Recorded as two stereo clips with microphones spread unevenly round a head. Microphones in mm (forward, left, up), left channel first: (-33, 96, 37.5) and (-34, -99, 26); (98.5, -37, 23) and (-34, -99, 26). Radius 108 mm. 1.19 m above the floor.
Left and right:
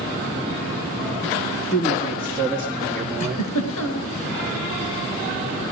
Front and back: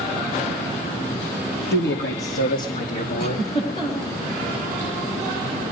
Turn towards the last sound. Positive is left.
turn(degrees=95)